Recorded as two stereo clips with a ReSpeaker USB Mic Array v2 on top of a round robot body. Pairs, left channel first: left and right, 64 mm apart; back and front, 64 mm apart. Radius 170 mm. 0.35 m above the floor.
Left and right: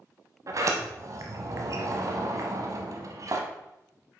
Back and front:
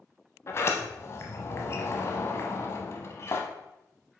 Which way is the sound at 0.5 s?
130° right.